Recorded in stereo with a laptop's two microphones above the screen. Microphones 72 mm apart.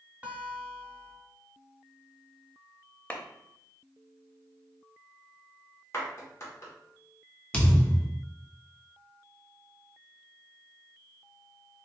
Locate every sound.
0.2 s a guitar: 20° right (ahead or behind), 0.8 m
3.1 s a clap: 20° left (ahead or behind), 0.6 m
5.9 s a clap: 40° left (ahead or behind), 1.4 m
7.5 s a thud: 15° left (ahead or behind), 1.1 m